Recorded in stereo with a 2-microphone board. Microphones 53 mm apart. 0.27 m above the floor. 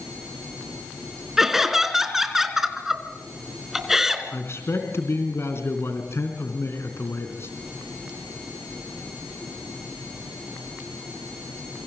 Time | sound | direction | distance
1.4 | laughter | 5° right (ahead or behind) | 3 m
4.3 | a man speaking | 50° left (ahead or behind) | 3.5 m